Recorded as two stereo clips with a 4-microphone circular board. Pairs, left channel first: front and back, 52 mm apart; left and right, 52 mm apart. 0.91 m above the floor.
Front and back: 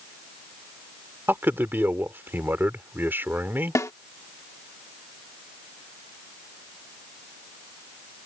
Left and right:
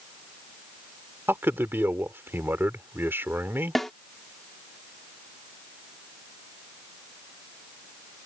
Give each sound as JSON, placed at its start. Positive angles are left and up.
{"t": 1.3, "sound": "a man speaking", "azimuth_deg": -135}
{"t": 3.8, "sound": "a snare drum", "azimuth_deg": 5}